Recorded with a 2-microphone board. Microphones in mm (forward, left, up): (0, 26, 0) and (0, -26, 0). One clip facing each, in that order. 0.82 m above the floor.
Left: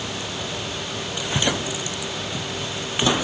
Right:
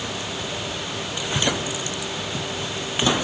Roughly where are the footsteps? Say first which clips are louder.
Left 1 dB; left.